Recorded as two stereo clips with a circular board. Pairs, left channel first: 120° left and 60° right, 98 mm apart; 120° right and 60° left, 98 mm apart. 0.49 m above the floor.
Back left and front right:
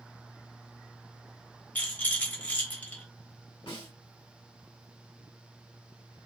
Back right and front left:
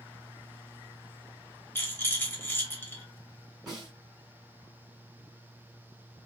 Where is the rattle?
175° right, 1.3 m.